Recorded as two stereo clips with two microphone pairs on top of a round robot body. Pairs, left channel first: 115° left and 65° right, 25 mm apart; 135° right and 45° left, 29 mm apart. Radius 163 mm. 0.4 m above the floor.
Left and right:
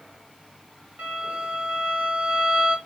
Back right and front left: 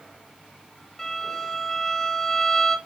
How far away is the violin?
About 3 m.